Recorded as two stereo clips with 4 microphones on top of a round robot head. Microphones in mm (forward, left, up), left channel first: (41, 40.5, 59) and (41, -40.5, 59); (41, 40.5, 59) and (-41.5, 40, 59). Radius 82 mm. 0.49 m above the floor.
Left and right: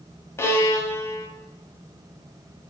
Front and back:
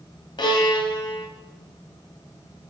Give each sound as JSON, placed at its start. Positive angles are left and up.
{"t": 0.4, "sound": "a violin", "azimuth_deg": 30, "distance_m": 1.2}